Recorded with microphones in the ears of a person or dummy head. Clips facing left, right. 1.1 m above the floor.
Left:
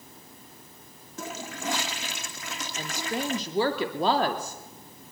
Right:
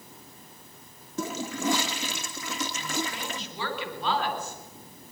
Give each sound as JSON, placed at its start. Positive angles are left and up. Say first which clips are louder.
{"t": 1.2, "sound": "a toilet flushing", "louder": "right 6 dB", "side_deg": -75, "distance_m": 2.0}
{"t": 2.8, "sound": "a woman speaking", "louder": "left 2 dB", "side_deg": 35, "distance_m": 2.5}